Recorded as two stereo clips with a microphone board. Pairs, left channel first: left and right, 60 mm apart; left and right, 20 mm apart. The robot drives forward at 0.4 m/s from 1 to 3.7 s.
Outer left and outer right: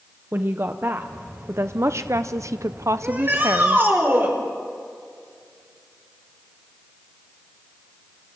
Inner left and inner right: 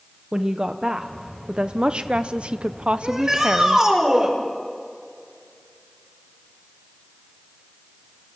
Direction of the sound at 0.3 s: 40° right (ahead or behind).